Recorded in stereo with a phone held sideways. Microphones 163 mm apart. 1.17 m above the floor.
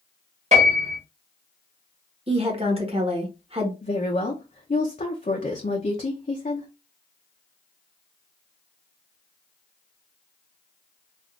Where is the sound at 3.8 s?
50° left (ahead or behind), 0.6 m.